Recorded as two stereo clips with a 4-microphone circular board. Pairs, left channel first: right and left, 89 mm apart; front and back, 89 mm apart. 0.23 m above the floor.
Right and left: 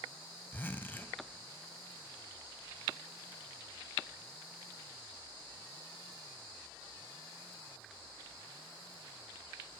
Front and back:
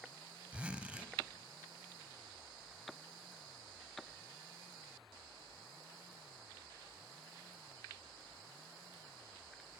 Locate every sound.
0.5 s a zipper: 120° right, 0.5 m